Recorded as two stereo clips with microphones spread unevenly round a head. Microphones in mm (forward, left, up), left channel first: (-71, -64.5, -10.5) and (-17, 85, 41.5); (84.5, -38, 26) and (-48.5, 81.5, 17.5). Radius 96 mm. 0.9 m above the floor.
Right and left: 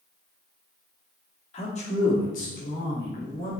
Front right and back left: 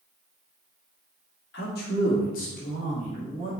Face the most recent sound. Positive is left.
turn(degrees=-100)